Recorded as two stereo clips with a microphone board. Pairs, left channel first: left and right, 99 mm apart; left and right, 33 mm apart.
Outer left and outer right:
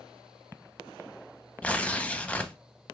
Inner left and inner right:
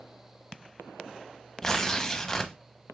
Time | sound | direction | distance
1.6 | tearing paper | 10° left (ahead or behind) | 0.6 m